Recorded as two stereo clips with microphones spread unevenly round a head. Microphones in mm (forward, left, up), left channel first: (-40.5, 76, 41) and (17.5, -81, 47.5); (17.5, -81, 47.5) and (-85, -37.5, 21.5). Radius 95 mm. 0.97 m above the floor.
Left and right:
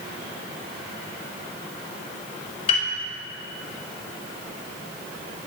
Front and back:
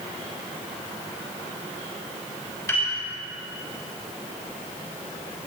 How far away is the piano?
About 6 m.